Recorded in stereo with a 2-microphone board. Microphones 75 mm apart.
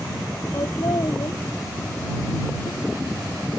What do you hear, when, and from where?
0.5 s laughter: 55° left (ahead or behind); by 3.6 s 60° left (ahead or behind)